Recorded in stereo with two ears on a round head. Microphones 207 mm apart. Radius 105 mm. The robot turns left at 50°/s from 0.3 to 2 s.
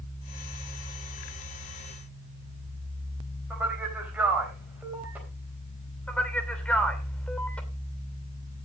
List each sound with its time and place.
3.5 s a man speaking: 5° right (ahead or behind), 4 m
6.1 s a man speaking: 5° left (ahead or behind), 2.5 m